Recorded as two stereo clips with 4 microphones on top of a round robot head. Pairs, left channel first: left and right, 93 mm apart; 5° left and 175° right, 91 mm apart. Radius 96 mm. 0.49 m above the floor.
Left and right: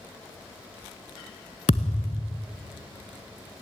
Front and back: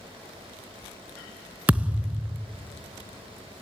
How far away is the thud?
About 0.5 m.